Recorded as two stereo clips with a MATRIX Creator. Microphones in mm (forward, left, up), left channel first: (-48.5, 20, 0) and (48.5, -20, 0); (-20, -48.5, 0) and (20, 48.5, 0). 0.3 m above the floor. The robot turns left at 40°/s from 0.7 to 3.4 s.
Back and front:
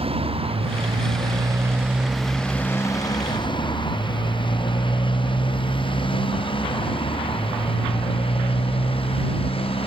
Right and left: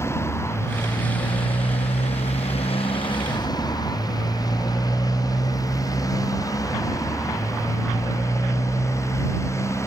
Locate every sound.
0.0 s a motorcycle: 45° right; by 9.9 s 175° right